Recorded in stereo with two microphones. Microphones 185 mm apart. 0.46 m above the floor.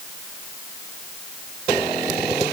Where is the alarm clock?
I don't hear an alarm clock.